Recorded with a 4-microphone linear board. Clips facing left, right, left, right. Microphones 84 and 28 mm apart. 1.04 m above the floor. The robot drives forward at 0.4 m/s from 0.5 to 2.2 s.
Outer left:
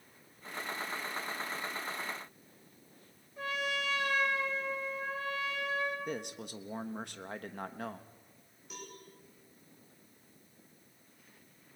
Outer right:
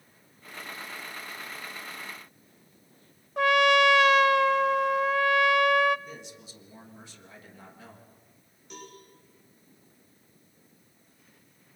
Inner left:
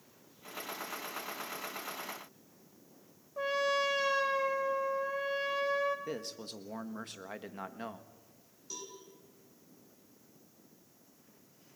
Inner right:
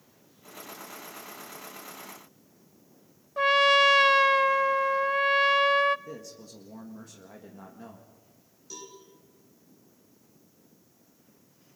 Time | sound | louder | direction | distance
3.4 | a trumpet | outer right 16 dB, inner right 11 dB | 75° right (ahead or behind) | 0.5 m
6.1 | a man speaking | outer left 5 dB, inner left 2 dB | 60° left (ahead or behind) | 1.4 m
8.7 | a cowbell | outer right 3 dB, inner right 2 dB | 5° left (ahead or behind) | 5.5 m